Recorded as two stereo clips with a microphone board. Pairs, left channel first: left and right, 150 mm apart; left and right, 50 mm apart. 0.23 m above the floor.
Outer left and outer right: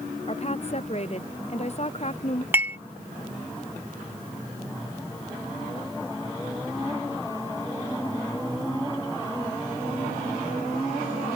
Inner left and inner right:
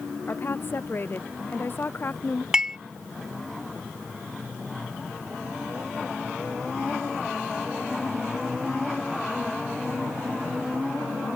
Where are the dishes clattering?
15° right (ahead or behind).